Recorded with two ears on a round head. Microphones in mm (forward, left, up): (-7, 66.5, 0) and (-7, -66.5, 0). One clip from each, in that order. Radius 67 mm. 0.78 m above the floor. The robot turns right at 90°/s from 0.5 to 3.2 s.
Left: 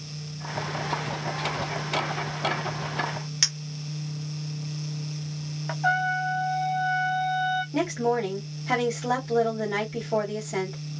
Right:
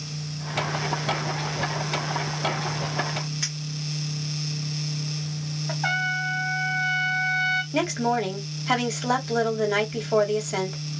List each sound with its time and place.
3.4 s a clink: 65° left (ahead or behind), 1.0 m
5.8 s a trumpet: 65° right (ahead or behind), 1.0 m
7.7 s a woman speaking: 50° right (ahead or behind), 1.4 m